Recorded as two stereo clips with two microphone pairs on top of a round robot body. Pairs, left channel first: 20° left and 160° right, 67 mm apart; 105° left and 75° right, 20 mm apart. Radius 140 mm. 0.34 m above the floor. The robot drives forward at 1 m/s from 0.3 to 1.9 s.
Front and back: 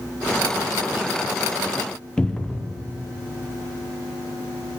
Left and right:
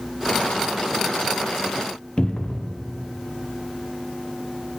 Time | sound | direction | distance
2.2 | a cupboard door | 80° left | 0.7 m